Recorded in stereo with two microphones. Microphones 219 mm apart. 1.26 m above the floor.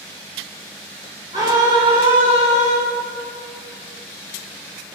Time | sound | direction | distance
1.3 | a scream | 15° right (ahead or behind) | 5 m